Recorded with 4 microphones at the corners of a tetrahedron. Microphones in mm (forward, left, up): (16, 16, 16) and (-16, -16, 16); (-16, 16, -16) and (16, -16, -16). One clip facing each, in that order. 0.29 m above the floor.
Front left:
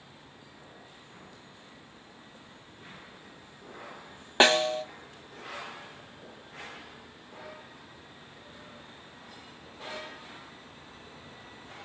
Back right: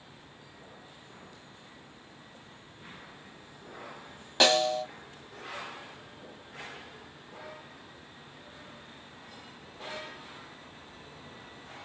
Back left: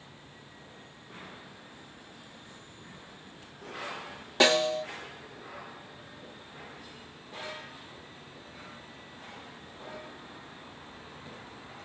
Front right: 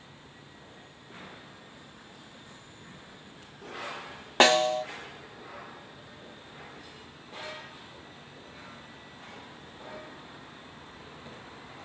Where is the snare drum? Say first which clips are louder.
Front left 2 dB, front right 3 dB; 15° right, 0.9 m.